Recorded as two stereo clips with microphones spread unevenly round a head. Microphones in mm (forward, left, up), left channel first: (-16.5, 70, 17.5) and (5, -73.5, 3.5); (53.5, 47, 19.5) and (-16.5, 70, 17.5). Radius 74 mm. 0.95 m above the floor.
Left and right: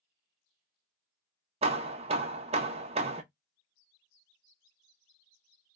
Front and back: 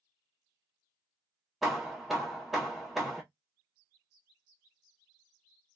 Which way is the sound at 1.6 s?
110° right.